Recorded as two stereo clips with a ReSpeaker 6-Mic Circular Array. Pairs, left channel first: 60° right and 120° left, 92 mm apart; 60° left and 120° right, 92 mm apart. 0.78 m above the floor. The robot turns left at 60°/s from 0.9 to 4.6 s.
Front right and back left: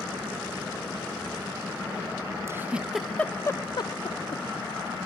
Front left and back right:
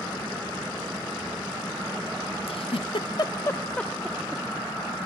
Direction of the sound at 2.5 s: 60° left.